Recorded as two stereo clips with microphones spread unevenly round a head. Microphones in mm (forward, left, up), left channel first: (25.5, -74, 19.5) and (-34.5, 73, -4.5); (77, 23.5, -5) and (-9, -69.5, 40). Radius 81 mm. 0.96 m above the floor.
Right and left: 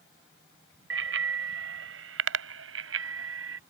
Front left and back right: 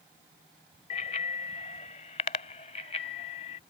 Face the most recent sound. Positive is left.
turn(degrees=105)